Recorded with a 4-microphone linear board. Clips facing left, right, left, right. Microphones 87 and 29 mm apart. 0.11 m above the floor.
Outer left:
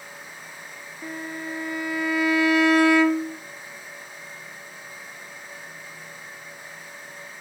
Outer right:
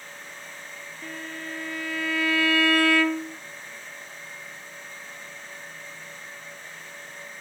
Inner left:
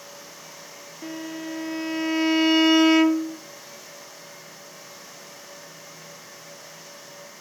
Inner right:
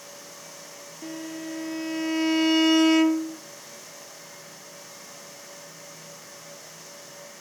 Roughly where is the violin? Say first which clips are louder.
Outer left 4 dB, inner left 2 dB; centre.